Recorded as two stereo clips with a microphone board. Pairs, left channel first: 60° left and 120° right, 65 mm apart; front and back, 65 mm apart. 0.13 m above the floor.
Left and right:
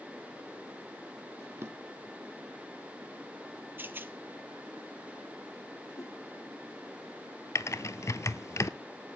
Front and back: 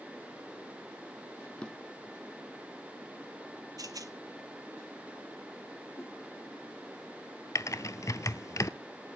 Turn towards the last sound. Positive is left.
turn(degrees=25)